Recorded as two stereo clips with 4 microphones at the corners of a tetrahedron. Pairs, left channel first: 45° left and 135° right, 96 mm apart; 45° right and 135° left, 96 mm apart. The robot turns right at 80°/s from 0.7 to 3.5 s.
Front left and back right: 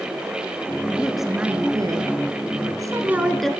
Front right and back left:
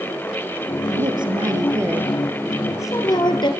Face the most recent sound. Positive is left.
turn(degrees=-35)